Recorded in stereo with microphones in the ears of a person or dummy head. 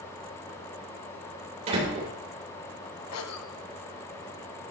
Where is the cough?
85° left, 1.7 m.